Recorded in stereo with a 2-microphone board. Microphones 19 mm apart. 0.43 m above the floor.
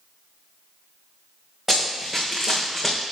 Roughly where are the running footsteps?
Right.